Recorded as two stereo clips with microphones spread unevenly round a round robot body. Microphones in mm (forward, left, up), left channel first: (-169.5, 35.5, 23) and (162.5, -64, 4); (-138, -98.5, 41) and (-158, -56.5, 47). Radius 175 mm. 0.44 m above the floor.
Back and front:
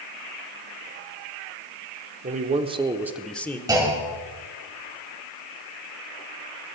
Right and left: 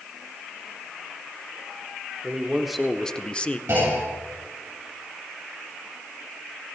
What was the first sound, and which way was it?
A man speaking, 40° left.